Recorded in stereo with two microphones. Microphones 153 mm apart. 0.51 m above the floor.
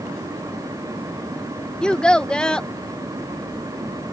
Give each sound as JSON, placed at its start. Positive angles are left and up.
{"t": 1.8, "sound": "a child speaking", "side_deg": 5}